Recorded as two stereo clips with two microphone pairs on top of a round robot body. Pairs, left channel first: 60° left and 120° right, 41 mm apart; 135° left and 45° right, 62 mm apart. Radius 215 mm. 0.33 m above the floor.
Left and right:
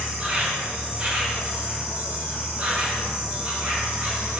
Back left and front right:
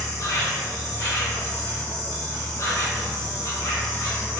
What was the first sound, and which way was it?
An insect, 175° left.